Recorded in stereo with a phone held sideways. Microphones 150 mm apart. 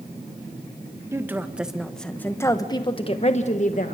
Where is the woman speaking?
15° right (ahead or behind), 1.7 m; by 4.0 s 60° left (ahead or behind), 1.6 m.